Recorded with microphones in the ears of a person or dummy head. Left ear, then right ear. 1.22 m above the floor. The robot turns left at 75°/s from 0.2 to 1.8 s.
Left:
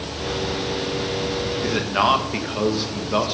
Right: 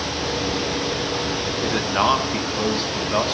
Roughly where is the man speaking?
Right.